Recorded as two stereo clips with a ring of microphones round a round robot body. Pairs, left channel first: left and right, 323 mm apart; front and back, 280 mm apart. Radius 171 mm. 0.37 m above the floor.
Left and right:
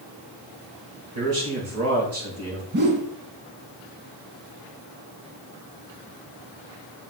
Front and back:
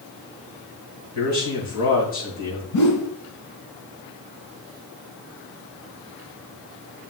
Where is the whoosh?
30° right, 1.3 m.